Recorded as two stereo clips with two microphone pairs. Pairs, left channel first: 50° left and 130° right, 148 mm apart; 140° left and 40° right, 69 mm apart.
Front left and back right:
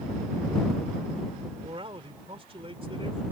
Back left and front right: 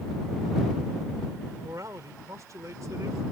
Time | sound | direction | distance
1.6 | a man speaking | 80° right | ?